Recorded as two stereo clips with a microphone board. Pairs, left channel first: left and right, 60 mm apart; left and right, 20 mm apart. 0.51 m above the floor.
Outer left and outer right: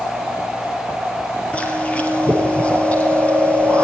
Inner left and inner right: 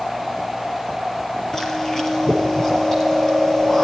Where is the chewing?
25° left (ahead or behind), 4 m.